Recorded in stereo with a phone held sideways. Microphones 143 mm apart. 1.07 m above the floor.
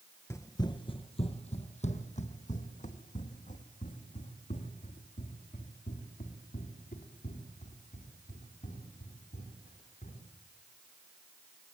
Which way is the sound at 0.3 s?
20° left (ahead or behind).